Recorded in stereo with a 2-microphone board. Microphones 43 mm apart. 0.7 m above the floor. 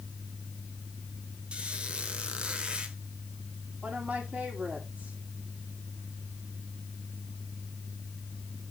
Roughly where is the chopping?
No chopping in this recording.